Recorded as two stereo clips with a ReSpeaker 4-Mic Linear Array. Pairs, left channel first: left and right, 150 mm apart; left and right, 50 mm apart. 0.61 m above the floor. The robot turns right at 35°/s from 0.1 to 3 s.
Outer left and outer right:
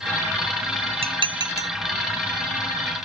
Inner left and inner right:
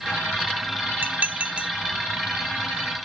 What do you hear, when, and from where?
1.0 s dishes clattering: 40° right (ahead or behind); by 1.7 s 20° right (ahead or behind)